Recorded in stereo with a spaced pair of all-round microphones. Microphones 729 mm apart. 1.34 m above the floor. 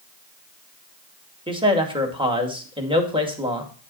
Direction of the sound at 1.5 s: 5° right (ahead or behind).